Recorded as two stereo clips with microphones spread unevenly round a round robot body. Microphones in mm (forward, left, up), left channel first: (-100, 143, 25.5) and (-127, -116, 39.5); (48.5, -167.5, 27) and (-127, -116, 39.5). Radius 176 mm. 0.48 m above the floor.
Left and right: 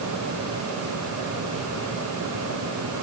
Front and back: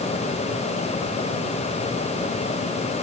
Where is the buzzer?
I don't hear a buzzer.